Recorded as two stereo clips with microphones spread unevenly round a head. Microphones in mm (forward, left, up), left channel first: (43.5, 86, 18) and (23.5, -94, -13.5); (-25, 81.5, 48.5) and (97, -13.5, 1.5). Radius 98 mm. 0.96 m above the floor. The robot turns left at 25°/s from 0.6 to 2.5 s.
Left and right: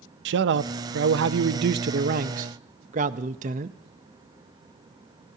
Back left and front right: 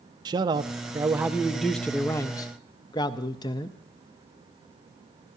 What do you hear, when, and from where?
0.2 s a man speaking: 95° right, 0.6 m; by 3.8 s 145° right, 0.6 m